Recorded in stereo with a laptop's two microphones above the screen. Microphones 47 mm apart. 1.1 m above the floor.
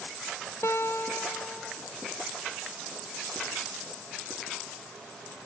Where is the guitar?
70° left (ahead or behind), 2.5 m.